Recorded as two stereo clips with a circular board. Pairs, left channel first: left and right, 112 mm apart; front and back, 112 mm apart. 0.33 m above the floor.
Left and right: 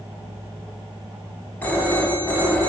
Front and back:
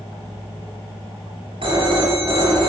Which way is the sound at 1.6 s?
160° left.